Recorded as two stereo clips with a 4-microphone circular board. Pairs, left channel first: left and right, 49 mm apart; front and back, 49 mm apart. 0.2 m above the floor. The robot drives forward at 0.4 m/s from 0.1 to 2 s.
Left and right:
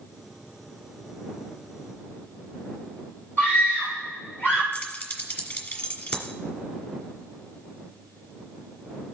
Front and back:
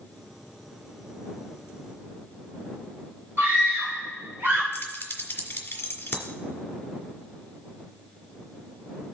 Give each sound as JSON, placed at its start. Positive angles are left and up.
{"t": 3.4, "sound": "a scream", "azimuth_deg": 140, "distance_m": 3.5}
{"t": 4.7, "sound": "keys jangling", "azimuth_deg": 45, "distance_m": 1.7}